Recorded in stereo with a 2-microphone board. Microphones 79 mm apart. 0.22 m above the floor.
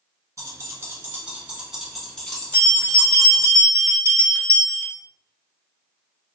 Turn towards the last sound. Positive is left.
turn(degrees=20)  # may be behind; listen again after turning